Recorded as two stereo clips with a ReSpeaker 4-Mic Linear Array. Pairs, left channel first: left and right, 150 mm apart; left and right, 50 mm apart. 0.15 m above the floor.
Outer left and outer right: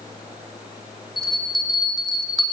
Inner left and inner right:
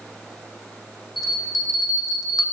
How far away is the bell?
About 6.5 m.